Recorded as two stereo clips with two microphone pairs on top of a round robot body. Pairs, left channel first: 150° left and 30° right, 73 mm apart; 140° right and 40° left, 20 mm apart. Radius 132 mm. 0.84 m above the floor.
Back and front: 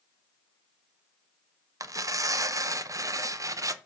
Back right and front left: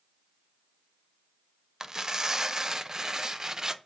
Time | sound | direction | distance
1.8 | tearing paper | 20° right | 0.6 m